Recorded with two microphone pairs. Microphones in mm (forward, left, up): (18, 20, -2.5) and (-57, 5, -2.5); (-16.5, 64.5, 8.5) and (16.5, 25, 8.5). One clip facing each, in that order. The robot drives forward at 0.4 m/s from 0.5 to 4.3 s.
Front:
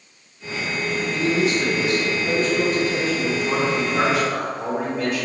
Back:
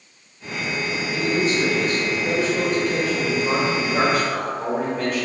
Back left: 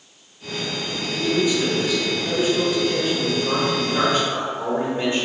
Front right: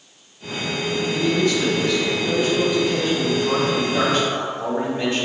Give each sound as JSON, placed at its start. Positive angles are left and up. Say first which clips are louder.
{"t": 1.1, "sound": "a man speaking", "louder": "even, back left 1 dB", "azimuth_deg": -170, "distance_m": 1.4}